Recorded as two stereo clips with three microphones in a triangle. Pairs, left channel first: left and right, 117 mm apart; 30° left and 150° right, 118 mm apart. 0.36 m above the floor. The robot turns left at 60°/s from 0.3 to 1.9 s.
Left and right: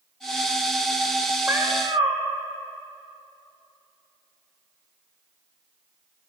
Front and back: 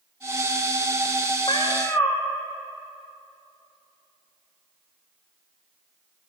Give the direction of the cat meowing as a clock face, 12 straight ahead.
1 o'clock.